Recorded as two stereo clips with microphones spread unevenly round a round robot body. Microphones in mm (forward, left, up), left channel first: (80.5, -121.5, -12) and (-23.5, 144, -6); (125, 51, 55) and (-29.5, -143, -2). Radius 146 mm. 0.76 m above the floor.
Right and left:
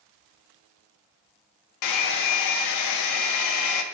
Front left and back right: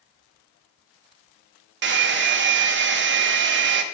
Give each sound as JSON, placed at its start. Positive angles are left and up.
{"t": 1.8, "sound": "a hair dryer", "azimuth_deg": -95, "distance_m": 0.6}